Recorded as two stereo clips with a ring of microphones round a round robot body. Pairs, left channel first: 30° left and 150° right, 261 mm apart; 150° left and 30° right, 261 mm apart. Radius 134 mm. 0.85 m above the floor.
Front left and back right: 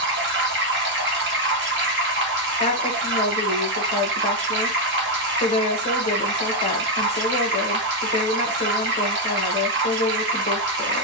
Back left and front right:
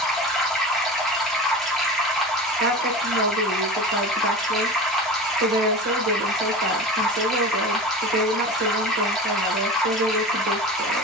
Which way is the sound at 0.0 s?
120° right.